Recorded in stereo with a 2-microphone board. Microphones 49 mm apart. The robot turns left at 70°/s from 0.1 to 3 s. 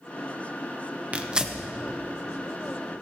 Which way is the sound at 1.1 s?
30° right (ahead or behind).